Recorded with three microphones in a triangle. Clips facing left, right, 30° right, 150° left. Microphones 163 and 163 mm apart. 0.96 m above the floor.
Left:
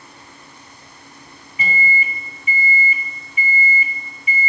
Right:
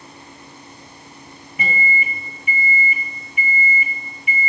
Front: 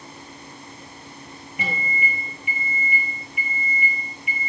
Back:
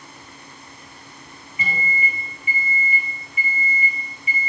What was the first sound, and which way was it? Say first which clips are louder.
A microwave: even, back 1 dB; 60° right.